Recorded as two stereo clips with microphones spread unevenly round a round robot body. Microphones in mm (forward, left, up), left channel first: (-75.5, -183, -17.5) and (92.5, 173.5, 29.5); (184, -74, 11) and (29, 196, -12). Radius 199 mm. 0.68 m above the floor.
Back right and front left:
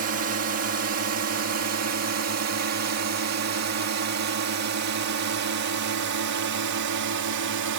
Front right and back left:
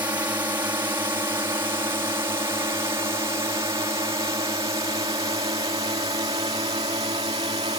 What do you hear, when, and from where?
0.0 s a drone: 50° left; by 7.8 s 55° left